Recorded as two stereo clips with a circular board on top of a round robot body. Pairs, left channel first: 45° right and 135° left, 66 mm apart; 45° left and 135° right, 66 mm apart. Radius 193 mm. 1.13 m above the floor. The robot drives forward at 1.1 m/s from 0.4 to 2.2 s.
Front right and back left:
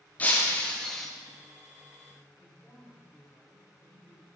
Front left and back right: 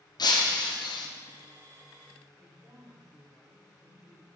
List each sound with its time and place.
0.2 s breaking glass: 25° left, 1.5 m; by 1.1 s 45° left, 0.9 m
2.4 s a woman speaking: 140° right, 6 m